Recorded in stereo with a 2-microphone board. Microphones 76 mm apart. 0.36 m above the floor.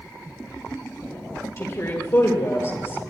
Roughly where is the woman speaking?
Left.